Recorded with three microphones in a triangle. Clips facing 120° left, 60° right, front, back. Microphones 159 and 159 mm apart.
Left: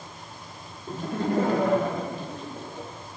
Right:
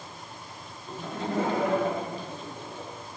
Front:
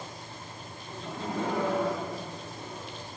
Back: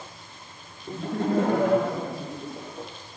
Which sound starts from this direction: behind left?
Laughter, at 0.9 s.